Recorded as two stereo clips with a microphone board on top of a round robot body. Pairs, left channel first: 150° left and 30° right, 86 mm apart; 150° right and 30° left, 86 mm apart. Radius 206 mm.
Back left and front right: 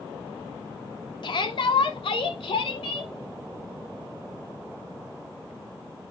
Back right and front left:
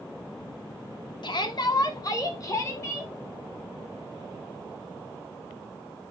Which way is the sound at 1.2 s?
Straight behind.